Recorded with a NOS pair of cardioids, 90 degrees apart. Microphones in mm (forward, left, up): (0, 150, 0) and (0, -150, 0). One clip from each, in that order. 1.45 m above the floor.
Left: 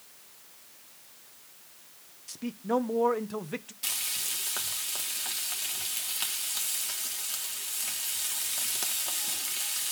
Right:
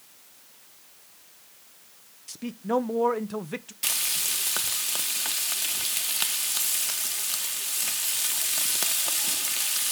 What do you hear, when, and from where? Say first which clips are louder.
2.3 s a man speaking: right 2 dB; 10° right, 0.6 m
3.8 s frying: right 6 dB; 35° right, 1.1 m